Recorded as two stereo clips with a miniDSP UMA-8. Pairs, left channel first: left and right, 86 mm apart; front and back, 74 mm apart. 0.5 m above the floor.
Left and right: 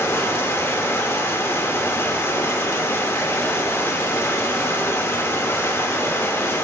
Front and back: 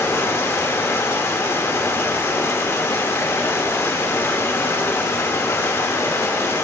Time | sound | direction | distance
0.0 | running water | 40° left | 0.9 m